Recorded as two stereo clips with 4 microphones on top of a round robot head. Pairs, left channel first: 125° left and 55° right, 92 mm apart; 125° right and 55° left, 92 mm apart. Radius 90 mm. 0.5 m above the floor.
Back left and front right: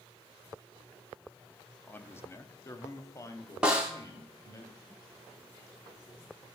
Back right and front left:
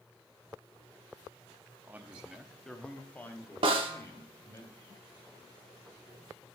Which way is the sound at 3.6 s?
25° left.